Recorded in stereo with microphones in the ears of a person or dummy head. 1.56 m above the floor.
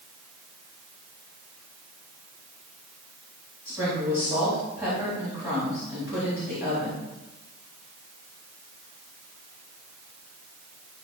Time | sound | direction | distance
3.6 | a woman speaking | 10° right (ahead or behind) | 4 m